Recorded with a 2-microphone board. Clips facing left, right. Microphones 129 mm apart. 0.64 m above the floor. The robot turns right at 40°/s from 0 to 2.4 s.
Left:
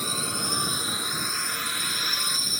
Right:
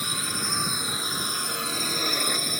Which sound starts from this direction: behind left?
A drone, at 0.0 s.